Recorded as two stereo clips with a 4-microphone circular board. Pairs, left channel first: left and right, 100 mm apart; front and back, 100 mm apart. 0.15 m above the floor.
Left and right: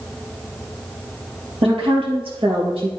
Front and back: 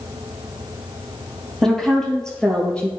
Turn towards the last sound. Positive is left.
turn(degrees=-75)